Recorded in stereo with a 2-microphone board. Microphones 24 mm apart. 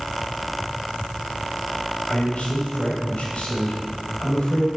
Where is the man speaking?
50° left (ahead or behind), 4.5 m.